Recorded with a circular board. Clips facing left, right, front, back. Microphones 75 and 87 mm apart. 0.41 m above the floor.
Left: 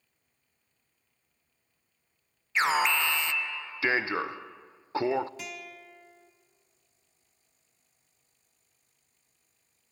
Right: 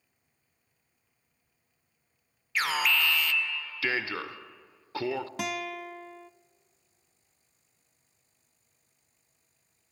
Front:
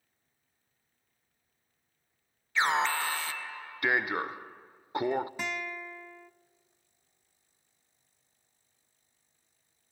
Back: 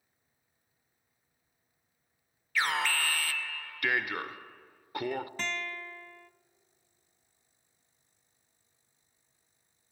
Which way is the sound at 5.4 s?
75° right.